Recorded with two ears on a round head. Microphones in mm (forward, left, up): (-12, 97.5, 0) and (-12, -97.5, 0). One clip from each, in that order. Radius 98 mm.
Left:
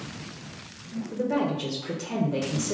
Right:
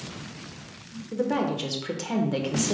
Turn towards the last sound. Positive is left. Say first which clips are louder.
# right 1 dB
turn(degrees=-40)  # may be behind; listen again after turning